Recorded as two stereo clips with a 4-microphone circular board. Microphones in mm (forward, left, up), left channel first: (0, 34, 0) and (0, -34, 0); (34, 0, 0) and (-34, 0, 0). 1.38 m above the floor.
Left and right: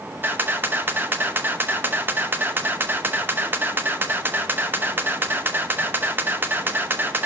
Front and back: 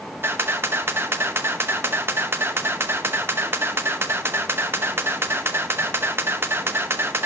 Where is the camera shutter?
140° right, 0.8 m.